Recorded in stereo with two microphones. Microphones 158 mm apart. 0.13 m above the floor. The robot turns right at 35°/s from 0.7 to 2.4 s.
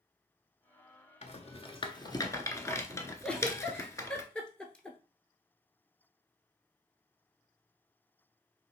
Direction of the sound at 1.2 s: 45° left (ahead or behind).